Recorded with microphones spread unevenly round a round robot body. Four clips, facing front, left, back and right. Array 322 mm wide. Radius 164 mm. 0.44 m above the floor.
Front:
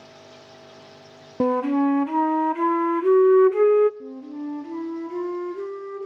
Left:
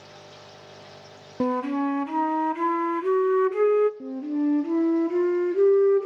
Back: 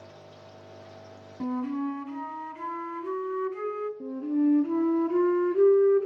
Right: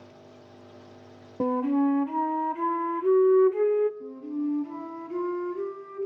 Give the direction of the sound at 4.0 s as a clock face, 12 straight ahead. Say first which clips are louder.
Left 5 dB, back 7 dB; 8 o'clock.